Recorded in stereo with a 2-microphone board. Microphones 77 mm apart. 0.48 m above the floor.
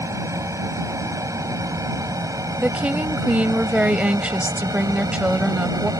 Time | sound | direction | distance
0.0 | an aircraft | 45° right (ahead or behind) | ?
2.6 | a woman speaking | 15° right (ahead or behind) | ?